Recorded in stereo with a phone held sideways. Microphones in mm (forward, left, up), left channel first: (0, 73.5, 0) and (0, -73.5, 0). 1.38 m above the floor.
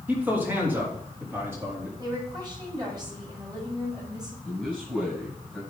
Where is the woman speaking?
30° right (ahead or behind), 5.5 m.